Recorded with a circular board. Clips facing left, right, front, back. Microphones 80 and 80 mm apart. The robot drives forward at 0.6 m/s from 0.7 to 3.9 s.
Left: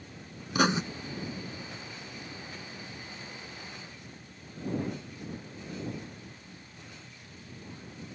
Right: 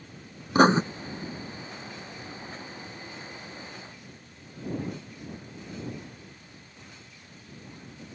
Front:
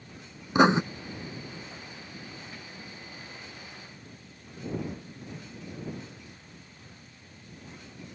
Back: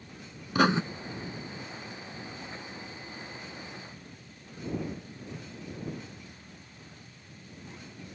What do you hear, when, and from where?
0.6 s writing: 60° right